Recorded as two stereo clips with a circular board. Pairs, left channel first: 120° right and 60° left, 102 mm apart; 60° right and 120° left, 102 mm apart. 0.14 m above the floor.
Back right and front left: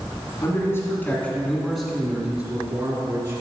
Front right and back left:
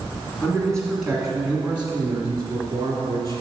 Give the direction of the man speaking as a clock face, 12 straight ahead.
4 o'clock.